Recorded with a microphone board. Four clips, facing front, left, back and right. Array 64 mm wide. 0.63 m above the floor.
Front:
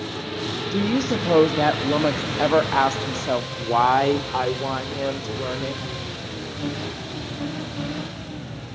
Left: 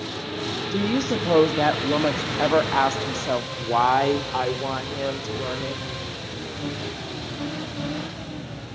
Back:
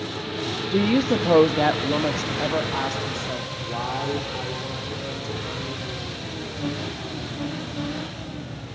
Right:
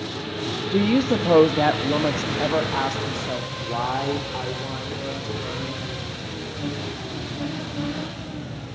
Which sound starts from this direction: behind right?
A woman speaking, at 0.7 s.